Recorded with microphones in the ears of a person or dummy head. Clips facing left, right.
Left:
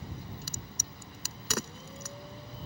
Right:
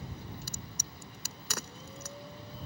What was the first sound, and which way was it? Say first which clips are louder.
A crack: left 1 dB; 60° left (ahead or behind).